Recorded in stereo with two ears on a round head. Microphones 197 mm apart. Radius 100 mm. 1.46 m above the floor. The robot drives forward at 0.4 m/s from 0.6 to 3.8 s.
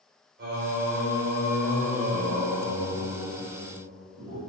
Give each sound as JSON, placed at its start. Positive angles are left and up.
{"t": 0.4, "sound": "singing", "side_deg": -50, "distance_m": 3.5}